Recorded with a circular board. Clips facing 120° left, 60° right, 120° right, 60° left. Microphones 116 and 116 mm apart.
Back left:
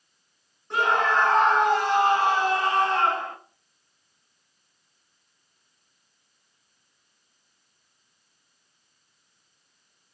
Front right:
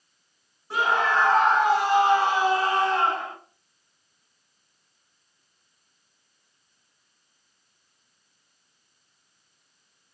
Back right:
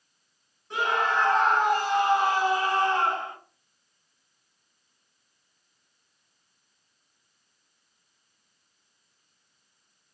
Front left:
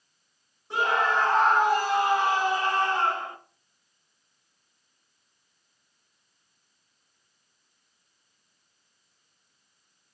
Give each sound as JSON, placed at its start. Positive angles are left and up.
{"t": 0.7, "sound": "a scream", "azimuth_deg": 20, "distance_m": 1.5}